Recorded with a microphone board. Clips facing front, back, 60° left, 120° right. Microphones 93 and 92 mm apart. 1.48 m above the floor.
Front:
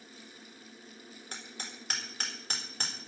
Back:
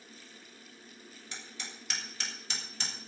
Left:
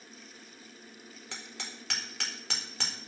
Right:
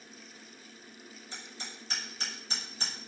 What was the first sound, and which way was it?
Hammering, 45° left.